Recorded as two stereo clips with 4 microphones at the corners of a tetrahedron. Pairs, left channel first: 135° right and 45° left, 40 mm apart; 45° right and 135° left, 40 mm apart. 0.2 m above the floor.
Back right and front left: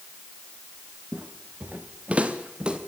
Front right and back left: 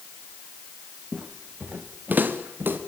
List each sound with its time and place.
1.1 s footsteps: 70° left, 1.7 m; by 2.8 s 110° left, 3 m